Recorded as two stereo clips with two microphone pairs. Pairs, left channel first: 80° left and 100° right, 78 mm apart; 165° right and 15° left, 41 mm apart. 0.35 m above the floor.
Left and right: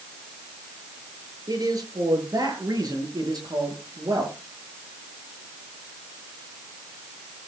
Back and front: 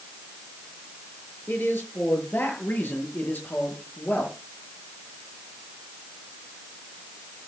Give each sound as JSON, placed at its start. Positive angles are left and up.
{"t": 1.5, "sound": "a man speaking", "azimuth_deg": -135, "distance_m": 7.5}